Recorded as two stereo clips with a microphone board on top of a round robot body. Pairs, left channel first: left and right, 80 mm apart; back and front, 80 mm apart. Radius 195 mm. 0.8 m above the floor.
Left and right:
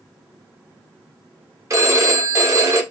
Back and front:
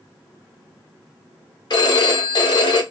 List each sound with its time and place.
1.7 s a phone ringing: 145° right, 0.9 m